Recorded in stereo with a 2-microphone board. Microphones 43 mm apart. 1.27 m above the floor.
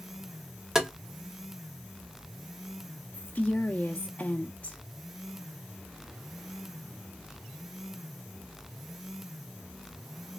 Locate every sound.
0.8 s tapping: 10° right (ahead or behind), 0.8 m
3.1 s a woman speaking: 35° left (ahead or behind), 0.6 m